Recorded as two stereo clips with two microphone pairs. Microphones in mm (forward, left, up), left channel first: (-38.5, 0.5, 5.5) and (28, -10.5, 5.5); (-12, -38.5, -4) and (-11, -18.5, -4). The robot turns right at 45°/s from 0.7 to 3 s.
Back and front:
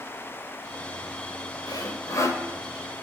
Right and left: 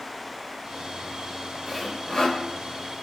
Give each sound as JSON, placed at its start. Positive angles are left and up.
{"t": 1.7, "sound": "sawing", "azimuth_deg": -170, "distance_m": 3.0}